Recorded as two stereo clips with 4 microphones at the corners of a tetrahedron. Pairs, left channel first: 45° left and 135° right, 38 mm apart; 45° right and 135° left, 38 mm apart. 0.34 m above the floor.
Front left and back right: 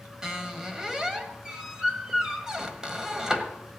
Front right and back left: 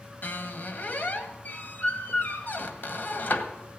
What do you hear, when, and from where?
0.2 s a squeak: 65° right, 1.5 m